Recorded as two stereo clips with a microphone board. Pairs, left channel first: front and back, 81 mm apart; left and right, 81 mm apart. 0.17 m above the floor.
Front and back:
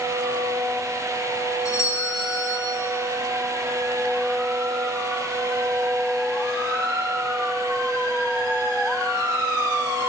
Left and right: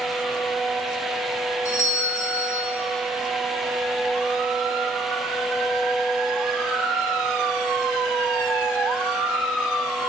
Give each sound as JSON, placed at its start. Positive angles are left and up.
{"t": 1.6, "sound": "a doorbell", "azimuth_deg": 35, "distance_m": 4.0}